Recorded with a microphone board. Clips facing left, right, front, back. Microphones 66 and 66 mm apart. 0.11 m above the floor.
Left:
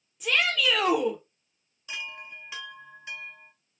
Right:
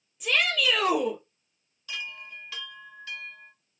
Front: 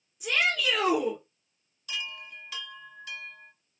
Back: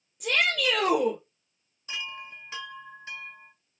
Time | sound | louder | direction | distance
0.2 | a shout | even, back 1 dB | 170° left | 2.5 m
1.9 | a chime | even, back 1 dB | 145° left | 0.6 m